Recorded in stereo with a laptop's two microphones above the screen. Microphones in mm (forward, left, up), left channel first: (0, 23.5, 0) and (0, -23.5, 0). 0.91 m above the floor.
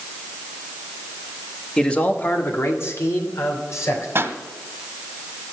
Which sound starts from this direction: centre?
A man speaking, at 1.8 s.